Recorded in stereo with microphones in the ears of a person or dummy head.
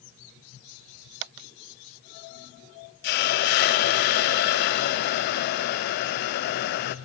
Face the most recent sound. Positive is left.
turn(degrees=50)  # may be behind; listen again after turning